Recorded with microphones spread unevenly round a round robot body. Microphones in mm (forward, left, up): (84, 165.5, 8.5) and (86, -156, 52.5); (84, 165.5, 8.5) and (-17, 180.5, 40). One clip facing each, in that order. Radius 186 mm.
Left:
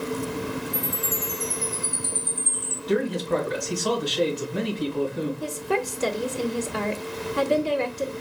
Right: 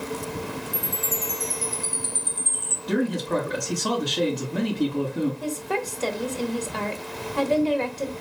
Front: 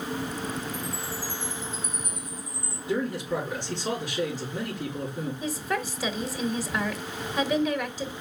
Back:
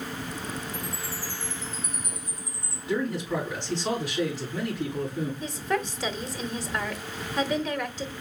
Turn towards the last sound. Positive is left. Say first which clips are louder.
# left 1 dB, front 1 dB
turn(degrees=45)